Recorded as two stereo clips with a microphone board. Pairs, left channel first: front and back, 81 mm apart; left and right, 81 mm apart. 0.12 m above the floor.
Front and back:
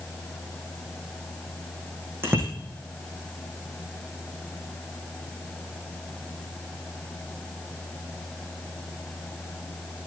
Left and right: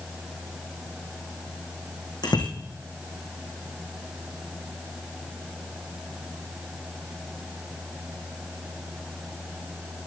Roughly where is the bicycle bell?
Behind left.